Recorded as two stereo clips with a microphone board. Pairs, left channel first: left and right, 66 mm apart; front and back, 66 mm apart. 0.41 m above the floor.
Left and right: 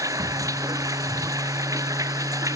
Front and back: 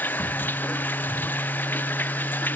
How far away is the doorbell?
I don't hear a doorbell.